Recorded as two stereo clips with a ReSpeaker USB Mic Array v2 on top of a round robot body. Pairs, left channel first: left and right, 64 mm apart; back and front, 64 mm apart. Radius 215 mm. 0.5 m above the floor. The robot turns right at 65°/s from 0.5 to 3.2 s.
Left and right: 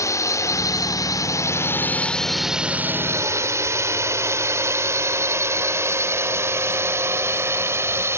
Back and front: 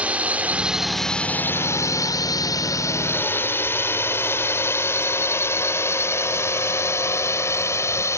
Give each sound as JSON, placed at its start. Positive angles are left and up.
{"t": 0.0, "sound": "a drone", "azimuth_deg": 65}